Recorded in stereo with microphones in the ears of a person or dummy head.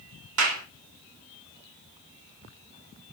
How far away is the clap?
About 1.6 m.